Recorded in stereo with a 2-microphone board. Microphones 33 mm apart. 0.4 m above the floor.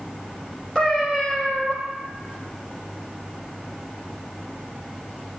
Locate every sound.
0.8 s a cat meowing: 20° left (ahead or behind), 3 m